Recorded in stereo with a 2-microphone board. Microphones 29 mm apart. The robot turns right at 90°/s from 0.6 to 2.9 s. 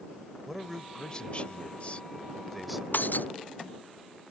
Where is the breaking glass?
80° left.